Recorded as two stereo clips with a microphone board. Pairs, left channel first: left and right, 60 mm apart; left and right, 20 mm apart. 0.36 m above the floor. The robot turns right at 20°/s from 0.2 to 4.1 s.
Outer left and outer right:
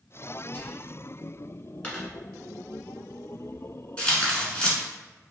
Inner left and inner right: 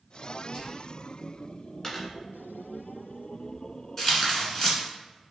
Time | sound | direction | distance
0.5 | whispering | 35° left (ahead or behind) | 1.2 m
1.8 | a dropped coin | 30° left (ahead or behind) | 1.6 m
4.0 | tearing paper | 20° left (ahead or behind) | 1.2 m